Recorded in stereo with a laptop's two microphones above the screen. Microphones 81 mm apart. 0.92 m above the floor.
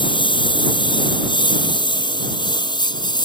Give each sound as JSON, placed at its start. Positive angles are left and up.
{"t": 0.0, "sound": "a lawn mower", "side_deg": 80}